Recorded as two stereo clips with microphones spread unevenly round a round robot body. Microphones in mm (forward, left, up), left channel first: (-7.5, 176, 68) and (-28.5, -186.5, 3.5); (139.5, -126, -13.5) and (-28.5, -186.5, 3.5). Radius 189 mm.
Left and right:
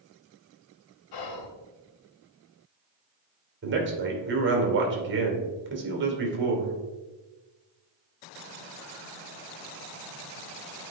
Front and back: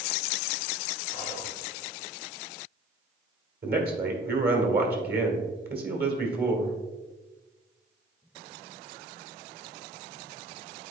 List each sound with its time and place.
1.1 s whispering: 110° left, 1.2 m
3.6 s a man speaking: 140° right, 2 m